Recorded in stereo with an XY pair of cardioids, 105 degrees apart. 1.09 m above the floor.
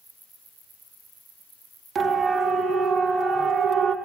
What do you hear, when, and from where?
1.9 s a siren: 55° right, 2.5 m; by 4.0 s 70° right, 1.3 m